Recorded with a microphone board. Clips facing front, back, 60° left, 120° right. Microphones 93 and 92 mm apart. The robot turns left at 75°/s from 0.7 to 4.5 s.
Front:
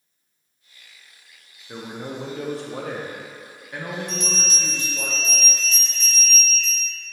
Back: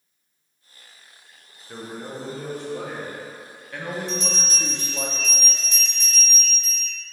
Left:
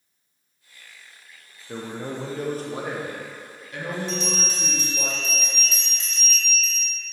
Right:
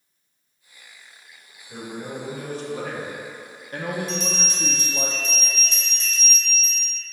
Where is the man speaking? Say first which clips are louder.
Front 1 dB, left 1 dB; 80° left, 0.6 m; by 5.1 s 130° right, 0.6 m.